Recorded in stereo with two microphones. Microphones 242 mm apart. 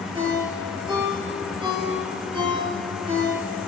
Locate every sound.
0.1 s a ringtone: 20° right (ahead or behind), 9 m